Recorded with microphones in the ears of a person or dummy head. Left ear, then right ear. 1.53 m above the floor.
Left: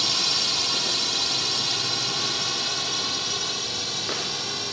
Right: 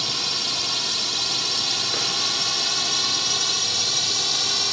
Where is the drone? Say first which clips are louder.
Left 1 dB; centre (ahead or behind); by 4.7 s 30° right (ahead or behind).